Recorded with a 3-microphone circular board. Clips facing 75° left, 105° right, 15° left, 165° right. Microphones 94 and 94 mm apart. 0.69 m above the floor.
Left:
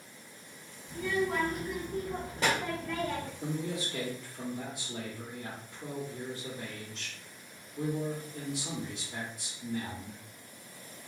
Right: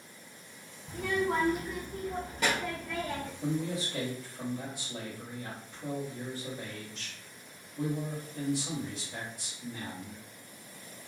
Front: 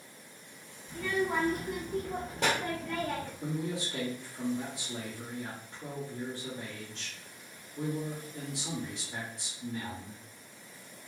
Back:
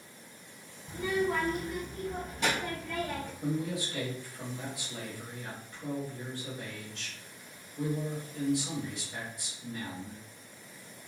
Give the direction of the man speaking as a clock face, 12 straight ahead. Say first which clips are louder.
Right 6 dB, back 5 dB; 11 o'clock.